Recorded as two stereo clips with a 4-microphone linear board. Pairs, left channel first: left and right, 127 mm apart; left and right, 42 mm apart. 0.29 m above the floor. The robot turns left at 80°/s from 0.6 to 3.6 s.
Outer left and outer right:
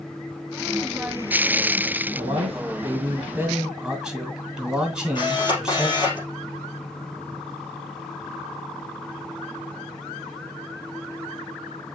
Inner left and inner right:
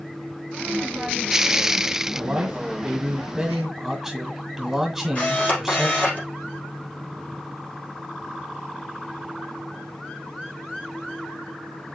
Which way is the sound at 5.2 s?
40° left (ahead or behind).